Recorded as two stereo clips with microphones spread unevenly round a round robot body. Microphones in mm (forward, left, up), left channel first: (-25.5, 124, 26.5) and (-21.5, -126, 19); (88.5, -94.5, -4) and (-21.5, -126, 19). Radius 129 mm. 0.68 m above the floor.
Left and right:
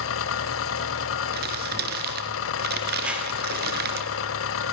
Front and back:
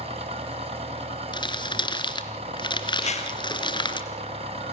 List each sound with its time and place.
0.0 s an engine running: 130° left, 1.6 m
1.3 s crumpling: 35° right, 3.5 m
3.0 s a whoosh: straight ahead, 4 m